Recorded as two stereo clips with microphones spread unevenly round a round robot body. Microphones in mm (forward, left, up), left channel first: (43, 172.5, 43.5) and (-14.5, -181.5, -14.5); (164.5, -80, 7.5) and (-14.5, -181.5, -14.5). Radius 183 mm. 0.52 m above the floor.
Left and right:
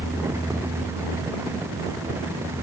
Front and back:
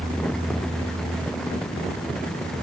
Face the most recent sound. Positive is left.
No sound to turn to.